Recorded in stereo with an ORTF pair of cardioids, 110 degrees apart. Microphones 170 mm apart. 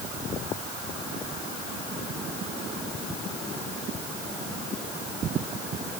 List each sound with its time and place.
Only background noise.